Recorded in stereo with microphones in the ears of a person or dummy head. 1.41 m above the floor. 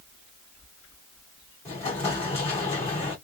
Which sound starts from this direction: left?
An explosion, at 1.6 s.